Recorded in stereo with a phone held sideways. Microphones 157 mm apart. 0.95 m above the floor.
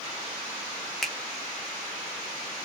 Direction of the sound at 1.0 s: 5° left (ahead or behind).